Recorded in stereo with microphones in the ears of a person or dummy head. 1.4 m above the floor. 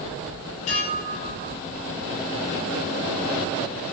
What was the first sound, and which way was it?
Dishes clattering, 45° left (ahead or behind).